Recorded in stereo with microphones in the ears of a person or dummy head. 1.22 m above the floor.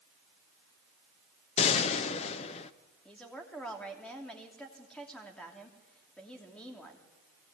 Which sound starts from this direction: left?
A gunshot, at 1.6 s.